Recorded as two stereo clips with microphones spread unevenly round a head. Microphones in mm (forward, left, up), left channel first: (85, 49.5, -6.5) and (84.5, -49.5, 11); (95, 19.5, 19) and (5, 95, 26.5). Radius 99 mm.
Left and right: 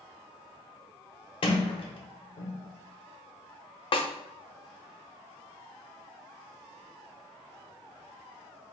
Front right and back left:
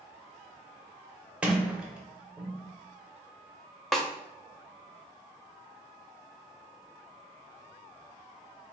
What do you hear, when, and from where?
1.4 s a sliding door: 65° left, 0.6 m
3.9 s a snare drum: 45° left, 0.5 m